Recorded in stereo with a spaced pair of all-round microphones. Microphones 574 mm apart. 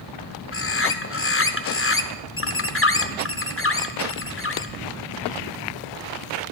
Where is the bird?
25° left (ahead or behind), 0.5 m.